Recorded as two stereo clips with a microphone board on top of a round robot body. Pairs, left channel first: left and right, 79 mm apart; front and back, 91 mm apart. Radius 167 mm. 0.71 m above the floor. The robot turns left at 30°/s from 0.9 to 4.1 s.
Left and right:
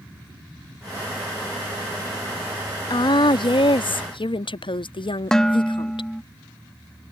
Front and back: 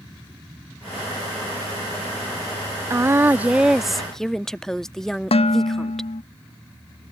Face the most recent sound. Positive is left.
turn(degrees=5)